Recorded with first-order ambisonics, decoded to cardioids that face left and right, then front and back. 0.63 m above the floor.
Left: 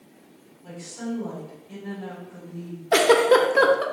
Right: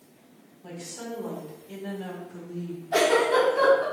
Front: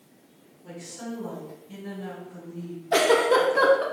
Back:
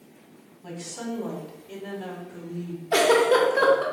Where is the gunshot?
I don't hear a gunshot.